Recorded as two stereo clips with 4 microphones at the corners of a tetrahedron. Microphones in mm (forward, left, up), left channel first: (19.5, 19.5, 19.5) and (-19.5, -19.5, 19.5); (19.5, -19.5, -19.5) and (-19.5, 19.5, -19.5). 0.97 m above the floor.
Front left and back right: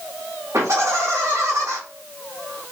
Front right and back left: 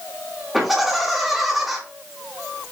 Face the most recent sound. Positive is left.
turn(degrees=-140)